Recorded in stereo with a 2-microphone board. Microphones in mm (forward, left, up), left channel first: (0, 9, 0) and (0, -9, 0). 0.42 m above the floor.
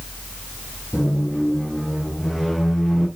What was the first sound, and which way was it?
A squeak, 10° left (ahead or behind).